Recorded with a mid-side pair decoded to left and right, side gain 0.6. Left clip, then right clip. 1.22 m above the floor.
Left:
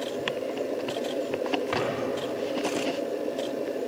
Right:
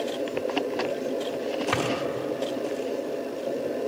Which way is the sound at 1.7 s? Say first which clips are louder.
Right 3 dB; 20° right.